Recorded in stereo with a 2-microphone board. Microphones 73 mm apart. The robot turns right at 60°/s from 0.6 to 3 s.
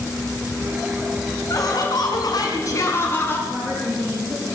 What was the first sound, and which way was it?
Laughter, 55° left.